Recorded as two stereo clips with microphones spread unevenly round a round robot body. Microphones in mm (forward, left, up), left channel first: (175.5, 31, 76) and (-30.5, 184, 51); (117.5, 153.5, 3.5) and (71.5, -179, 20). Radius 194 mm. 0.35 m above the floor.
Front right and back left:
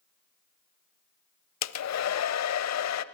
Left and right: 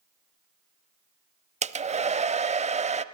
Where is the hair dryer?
25° right, 1.0 m.